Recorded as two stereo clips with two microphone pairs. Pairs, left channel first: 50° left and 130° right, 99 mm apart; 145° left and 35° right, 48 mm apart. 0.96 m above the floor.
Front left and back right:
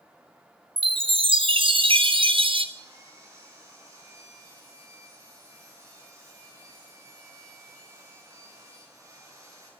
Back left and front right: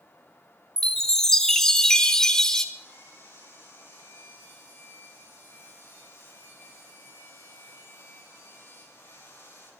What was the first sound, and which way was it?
A chime, 140° right.